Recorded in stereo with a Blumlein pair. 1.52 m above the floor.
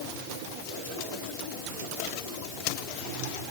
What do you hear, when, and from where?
Only background noise.